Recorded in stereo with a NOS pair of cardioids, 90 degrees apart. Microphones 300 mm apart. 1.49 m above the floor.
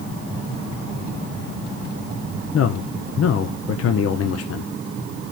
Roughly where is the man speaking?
Ahead left.